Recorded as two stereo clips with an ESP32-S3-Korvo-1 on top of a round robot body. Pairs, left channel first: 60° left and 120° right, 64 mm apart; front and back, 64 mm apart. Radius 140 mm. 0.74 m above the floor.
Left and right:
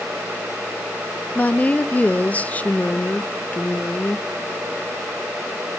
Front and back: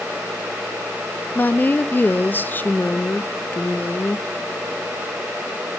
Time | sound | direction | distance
1.4 | a woman speaking | 20° left | 0.6 m